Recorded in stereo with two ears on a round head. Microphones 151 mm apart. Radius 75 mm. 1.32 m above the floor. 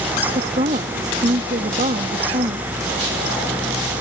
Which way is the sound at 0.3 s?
40° right (ahead or behind).